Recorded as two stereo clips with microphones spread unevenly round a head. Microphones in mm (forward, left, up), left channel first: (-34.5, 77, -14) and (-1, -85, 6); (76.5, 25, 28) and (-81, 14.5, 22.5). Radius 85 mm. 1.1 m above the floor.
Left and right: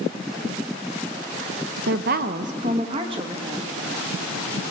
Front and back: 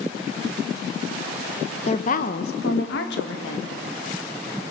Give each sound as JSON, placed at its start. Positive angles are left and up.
{"t": 1.9, "sound": "a woman speaking", "azimuth_deg": -45, "distance_m": 0.9}